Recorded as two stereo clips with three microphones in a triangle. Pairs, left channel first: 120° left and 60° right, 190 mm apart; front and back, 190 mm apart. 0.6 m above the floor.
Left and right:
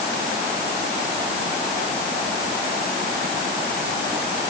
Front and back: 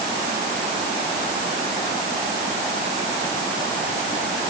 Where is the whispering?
No whispering in this recording.